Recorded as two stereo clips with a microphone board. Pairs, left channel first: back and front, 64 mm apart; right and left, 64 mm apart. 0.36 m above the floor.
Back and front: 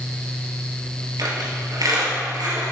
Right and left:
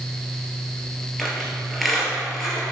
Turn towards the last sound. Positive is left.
turn(degrees=0)